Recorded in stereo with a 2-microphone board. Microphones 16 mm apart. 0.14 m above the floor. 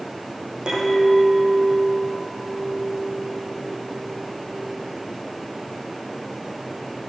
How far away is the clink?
About 5 m.